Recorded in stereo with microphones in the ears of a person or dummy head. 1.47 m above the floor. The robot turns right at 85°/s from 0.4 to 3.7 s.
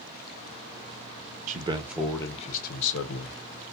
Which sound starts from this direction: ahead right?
A man speaking, at 1.5 s.